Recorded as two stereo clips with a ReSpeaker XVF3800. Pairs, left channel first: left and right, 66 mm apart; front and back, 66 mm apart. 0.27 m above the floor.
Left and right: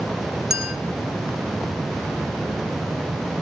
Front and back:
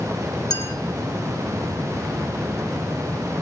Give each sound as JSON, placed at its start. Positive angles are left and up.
{"t": 0.5, "sound": "a clink", "azimuth_deg": -5, "distance_m": 3.0}